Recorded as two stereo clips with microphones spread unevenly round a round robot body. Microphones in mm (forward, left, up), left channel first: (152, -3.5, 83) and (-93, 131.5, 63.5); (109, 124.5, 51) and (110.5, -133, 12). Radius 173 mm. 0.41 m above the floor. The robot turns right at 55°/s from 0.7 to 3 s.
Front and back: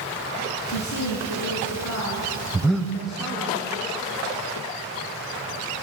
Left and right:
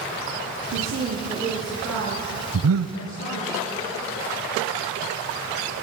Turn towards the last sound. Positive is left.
turn(degrees=-105)